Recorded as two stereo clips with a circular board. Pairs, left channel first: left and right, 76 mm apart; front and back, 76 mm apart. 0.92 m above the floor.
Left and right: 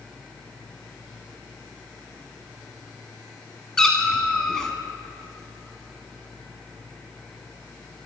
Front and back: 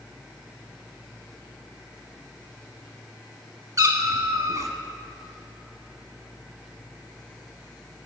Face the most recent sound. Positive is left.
turn(degrees=170)